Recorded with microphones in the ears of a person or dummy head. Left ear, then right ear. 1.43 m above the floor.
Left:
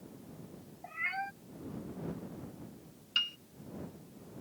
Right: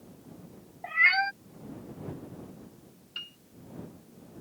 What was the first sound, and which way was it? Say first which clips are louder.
A cat meowing: right 14 dB; 60° right (ahead or behind).